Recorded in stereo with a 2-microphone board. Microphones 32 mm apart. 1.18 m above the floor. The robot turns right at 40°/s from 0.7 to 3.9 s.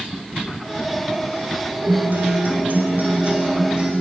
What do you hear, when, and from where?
1.8 s a guitar: 105° right, 3 m; by 3.9 s 20° right, 3 m